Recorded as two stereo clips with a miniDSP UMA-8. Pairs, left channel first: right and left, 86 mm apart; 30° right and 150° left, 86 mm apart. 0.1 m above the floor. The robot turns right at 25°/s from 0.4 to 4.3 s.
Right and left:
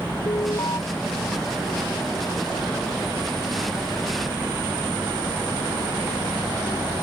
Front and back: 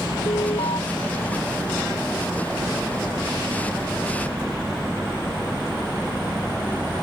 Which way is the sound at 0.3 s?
50° right.